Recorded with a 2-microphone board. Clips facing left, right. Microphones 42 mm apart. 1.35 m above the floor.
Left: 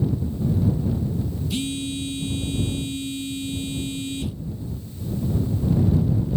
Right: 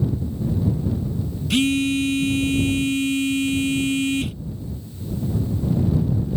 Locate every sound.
1.5 s a phone buzzing: 70° right (ahead or behind)